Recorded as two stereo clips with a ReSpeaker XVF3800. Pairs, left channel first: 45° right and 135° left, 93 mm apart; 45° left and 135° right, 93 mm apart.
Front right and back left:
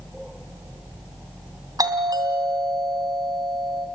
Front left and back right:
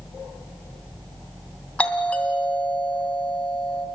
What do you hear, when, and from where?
1.8 s a doorbell: 115° left, 2.5 m